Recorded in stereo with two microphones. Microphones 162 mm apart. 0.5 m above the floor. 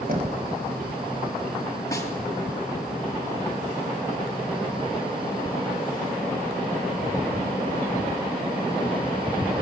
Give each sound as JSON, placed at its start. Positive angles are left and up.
{"t": 0.1, "sound": "knocking", "side_deg": -60, "distance_m": 2.5}
{"t": 1.9, "sound": "a snare drum", "side_deg": 20, "distance_m": 3.5}